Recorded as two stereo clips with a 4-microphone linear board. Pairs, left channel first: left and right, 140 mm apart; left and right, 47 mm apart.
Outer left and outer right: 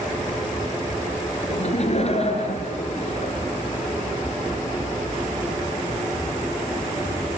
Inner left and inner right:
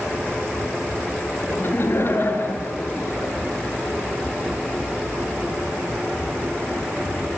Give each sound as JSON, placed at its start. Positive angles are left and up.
{"t": 1.5, "sound": "laughter", "side_deg": 50, "distance_m": 4.0}